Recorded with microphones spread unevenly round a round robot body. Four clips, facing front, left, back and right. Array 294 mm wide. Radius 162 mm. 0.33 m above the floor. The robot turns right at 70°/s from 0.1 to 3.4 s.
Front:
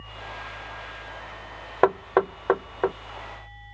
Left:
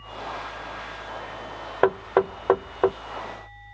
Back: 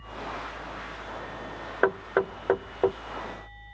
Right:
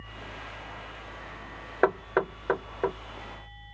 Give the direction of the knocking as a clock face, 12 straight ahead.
11 o'clock.